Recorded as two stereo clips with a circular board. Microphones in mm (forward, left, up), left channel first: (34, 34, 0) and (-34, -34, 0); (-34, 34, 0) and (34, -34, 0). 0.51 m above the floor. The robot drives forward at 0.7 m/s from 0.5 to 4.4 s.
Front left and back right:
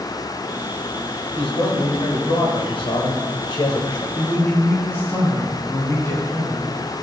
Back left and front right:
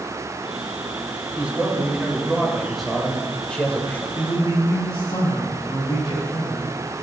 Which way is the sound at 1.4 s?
30° left.